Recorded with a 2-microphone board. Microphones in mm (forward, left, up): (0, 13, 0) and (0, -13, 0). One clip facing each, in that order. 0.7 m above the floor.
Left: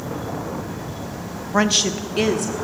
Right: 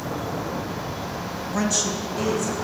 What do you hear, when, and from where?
1.5 s a woman speaking: 30° left (ahead or behind), 0.7 m; by 2.5 s 65° left (ahead or behind), 1.4 m